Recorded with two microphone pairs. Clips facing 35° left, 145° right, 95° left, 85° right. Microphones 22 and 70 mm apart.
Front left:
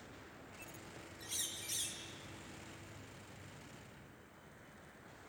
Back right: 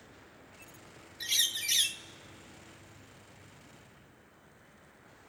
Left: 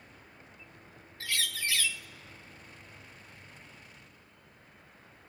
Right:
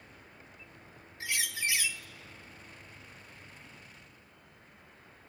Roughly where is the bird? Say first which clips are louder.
Back right 15 dB, even; behind.